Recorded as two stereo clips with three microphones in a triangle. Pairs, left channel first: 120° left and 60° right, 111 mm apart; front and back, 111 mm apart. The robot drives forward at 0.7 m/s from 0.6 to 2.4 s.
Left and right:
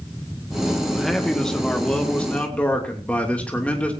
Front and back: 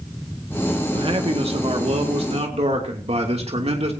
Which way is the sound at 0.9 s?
150° right.